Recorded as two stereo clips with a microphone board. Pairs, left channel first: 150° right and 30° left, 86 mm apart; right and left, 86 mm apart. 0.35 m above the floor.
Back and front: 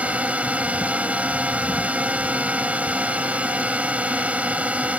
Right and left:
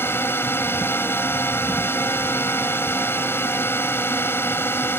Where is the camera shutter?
I don't hear a camera shutter.